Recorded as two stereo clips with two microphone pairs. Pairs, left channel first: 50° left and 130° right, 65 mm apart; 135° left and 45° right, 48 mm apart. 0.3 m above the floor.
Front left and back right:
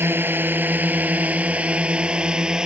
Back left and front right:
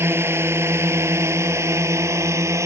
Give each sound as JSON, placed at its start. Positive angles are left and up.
{"t": 0.0, "sound": "a drone", "azimuth_deg": -75}